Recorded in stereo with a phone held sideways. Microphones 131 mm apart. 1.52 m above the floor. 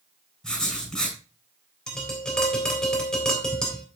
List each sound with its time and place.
0.4 s writing: 5° left (ahead or behind), 6.5 m
1.9 s tapping: 5° left (ahead or behind), 3.5 m